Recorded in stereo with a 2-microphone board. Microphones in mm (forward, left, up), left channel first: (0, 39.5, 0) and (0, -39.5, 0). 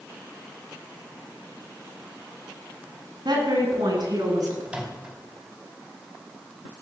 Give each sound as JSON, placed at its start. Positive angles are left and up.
{"t": 3.2, "sound": "a woman speaking", "side_deg": -65, "distance_m": 7.0}
{"t": 4.7, "sound": "a microwave", "side_deg": -15, "distance_m": 4.5}